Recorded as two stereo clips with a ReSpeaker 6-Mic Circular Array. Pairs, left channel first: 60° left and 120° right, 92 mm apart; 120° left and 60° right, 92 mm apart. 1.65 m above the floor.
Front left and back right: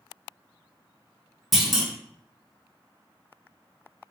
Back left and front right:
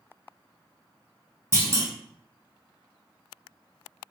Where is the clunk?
35° right, 0.8 m.